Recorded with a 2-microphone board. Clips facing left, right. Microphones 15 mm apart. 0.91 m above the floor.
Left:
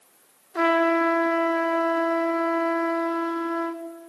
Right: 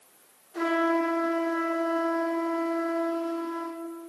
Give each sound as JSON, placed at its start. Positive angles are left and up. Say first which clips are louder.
{"t": 0.6, "sound": "a trumpet", "louder": "left 5 dB", "side_deg": 80, "distance_m": 1.0}